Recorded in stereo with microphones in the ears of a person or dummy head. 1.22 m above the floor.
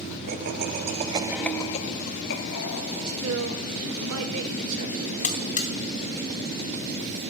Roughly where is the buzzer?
Left.